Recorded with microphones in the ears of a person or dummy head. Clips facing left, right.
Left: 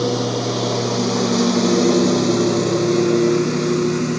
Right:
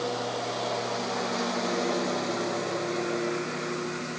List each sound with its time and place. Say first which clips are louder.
0.0 s a lawn mower: left 11 dB; 65° left (ahead or behind)